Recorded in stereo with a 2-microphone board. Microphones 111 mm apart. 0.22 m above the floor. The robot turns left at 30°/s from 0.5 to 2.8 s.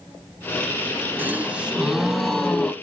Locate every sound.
1.2 s a gasp: 150° right, 0.6 m; by 2.7 s 165° left, 0.6 m